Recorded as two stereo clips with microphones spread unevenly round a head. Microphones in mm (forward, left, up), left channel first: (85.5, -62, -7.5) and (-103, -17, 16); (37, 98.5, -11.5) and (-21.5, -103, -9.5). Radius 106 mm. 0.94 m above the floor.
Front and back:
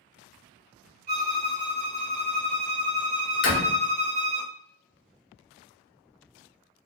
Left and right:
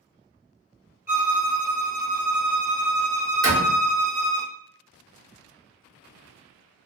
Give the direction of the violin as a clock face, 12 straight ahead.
6 o'clock.